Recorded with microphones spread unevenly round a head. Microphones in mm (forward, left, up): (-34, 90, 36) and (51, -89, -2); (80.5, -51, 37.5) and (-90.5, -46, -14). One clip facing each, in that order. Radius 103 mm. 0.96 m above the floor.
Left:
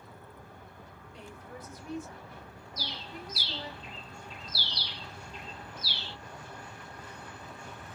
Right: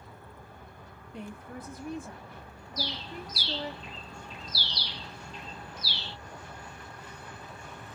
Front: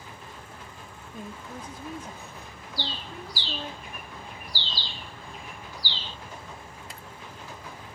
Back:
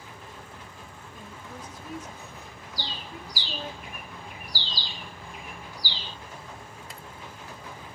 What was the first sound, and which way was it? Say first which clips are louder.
A woman speaking: right 6 dB, front 4 dB; 45° right.